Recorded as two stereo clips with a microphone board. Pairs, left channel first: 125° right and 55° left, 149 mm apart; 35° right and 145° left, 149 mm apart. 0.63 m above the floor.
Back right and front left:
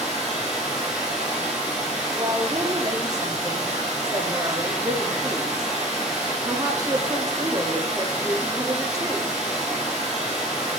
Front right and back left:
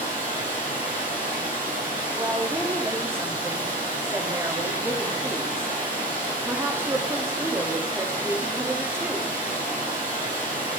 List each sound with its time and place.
0.0 s running water: 140° left, 4 m
2.1 s a woman speaking: 90° left, 0.8 m